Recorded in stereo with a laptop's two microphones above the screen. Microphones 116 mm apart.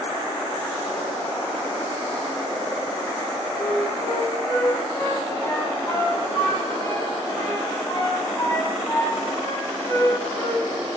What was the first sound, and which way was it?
A flute, 35° left (ahead or behind).